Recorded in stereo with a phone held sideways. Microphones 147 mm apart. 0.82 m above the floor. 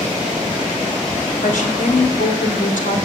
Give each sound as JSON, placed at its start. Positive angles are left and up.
{"t": 1.4, "sound": "a woman speaking", "side_deg": 75, "distance_m": 3.0}